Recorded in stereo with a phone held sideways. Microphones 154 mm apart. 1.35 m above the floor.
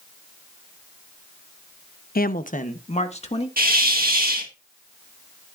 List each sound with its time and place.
2.1 s a woman speaking: 75° left (ahead or behind), 0.5 m; by 3.5 s 40° left (ahead or behind), 1.8 m
3.6 s a hiss: 70° right (ahead or behind), 1.7 m